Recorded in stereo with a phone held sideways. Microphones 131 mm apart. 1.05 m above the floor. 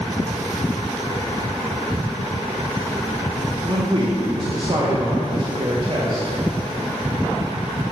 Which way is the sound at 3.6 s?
40° right (ahead or behind).